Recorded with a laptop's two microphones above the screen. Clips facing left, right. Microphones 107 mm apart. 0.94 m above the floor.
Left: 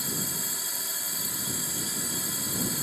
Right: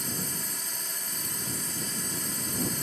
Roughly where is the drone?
Centre.